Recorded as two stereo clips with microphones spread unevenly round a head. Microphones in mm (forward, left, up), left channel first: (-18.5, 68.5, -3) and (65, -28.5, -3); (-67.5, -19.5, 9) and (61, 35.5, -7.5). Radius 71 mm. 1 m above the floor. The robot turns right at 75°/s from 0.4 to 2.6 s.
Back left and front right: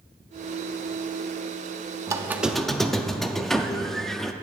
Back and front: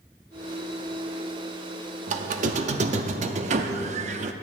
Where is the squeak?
5° left, 0.5 m; by 4.3 s 45° left, 0.5 m.